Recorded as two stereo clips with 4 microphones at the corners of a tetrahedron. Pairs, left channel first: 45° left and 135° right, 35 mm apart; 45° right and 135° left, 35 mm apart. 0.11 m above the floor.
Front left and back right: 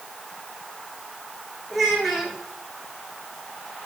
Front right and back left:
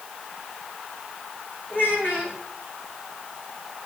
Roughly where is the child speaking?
Ahead right.